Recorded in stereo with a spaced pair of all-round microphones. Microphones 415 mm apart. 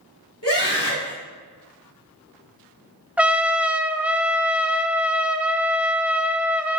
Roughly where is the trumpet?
Centre.